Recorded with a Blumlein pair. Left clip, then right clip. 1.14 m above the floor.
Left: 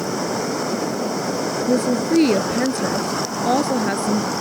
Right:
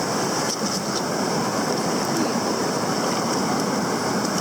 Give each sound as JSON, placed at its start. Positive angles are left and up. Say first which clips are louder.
{"t": 1.7, "sound": "a woman speaking", "louder": "left 4 dB", "azimuth_deg": 60}